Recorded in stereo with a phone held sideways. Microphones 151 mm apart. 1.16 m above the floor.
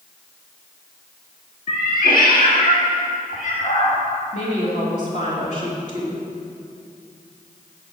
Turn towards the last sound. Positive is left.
turn(degrees=50)  # may be behind; listen again after turning